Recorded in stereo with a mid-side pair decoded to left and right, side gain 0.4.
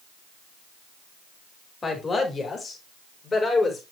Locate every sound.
1.8 s a woman speaking: 40° left, 4.5 m; by 3.8 s 45° left, 5 m